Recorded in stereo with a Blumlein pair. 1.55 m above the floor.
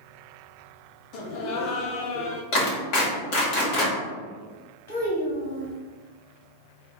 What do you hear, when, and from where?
1.1 s laughter: 40° left, 0.7 m
2.5 s a clap: 40° left, 1.7 m
4.9 s a child speaking: 55° left, 1.3 m